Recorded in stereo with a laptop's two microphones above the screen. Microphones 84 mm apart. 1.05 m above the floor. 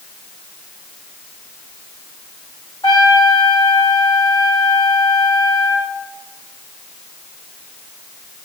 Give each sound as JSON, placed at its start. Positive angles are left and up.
{"t": 2.8, "sound": "a trumpet", "side_deg": 60, "distance_m": 3.0}